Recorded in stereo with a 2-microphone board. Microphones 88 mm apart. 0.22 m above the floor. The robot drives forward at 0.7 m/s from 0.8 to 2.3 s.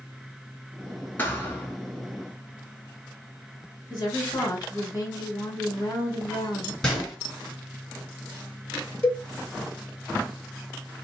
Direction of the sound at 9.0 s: 15° left (ahead or behind).